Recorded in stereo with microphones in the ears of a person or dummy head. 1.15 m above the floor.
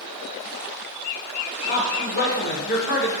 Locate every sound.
1.7 s a man speaking: 50° left (ahead or behind), 0.6 m